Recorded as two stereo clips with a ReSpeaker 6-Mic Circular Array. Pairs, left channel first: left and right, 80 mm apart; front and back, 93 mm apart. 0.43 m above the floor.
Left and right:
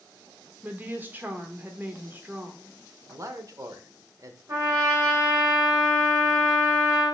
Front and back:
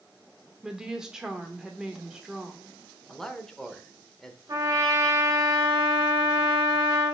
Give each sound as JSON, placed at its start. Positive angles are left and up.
{"t": 0.6, "sound": "a woman speaking", "azimuth_deg": -105, "distance_m": 0.9}
{"t": 3.1, "sound": "a man speaking", "azimuth_deg": -85, "distance_m": 0.9}
{"t": 4.5, "sound": "a trumpet", "azimuth_deg": -130, "distance_m": 2.0}